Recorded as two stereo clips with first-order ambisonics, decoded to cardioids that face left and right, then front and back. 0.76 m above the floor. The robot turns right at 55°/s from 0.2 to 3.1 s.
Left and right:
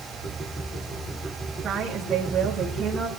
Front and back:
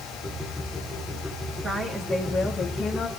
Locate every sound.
1.6 s a woman speaking: 115° right, 1.1 m; by 3.1 s 35° right, 1.1 m